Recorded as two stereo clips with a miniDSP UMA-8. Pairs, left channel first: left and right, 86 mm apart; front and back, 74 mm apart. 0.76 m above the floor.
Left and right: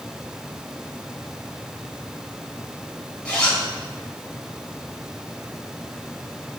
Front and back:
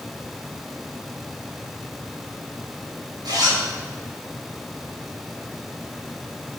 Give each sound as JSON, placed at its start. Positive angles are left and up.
{"t": 3.2, "sound": "a zipper", "azimuth_deg": 165, "distance_m": 4.0}